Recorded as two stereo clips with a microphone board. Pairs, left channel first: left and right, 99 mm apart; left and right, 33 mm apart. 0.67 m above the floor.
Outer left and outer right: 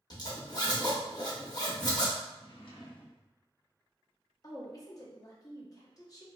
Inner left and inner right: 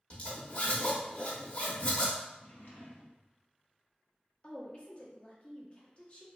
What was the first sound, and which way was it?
A zipper, 40° left (ahead or behind).